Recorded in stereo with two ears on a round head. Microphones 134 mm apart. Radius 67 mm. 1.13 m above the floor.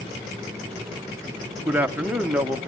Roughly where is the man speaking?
Centre.